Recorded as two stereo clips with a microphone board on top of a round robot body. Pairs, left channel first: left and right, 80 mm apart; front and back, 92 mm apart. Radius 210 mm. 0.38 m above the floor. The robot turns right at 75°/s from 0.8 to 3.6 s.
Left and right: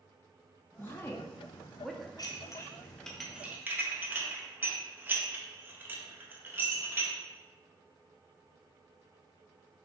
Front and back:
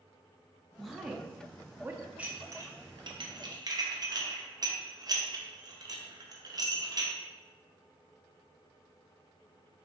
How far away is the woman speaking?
About 0.8 m.